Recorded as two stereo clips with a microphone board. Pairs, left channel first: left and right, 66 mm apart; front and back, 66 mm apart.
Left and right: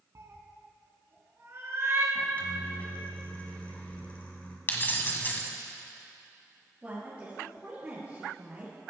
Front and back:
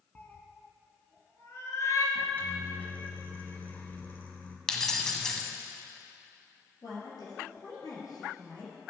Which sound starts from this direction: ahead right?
A cat meowing, at 0.1 s.